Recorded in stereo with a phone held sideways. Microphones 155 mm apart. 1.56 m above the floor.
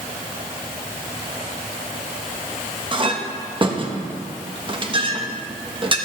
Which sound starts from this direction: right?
A clink, at 2.9 s.